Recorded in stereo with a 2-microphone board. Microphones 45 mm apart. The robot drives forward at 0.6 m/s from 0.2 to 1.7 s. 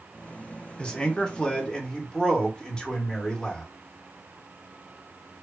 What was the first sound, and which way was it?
A man speaking, 20° left (ahead or behind).